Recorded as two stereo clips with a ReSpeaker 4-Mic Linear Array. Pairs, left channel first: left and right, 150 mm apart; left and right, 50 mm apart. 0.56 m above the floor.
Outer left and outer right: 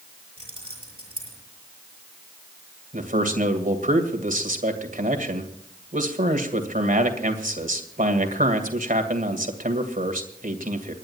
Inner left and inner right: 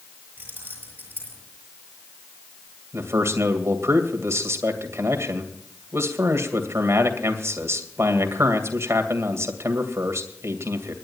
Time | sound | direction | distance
0.4 | keys jangling | 35° right (ahead or behind) | 7 m
2.9 | a man speaking | 65° right (ahead or behind) | 2.5 m